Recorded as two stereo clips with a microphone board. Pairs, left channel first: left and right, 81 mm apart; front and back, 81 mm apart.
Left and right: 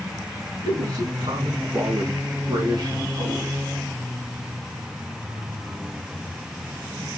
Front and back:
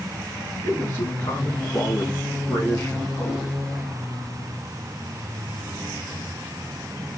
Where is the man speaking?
55° right, 5.5 m; by 3.6 s 60° right, 4 m.